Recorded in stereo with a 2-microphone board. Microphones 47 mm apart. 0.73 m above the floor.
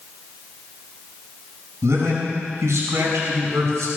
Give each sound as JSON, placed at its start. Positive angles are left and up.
{"t": 1.8, "sound": "a man speaking", "side_deg": -85, "distance_m": 6.0}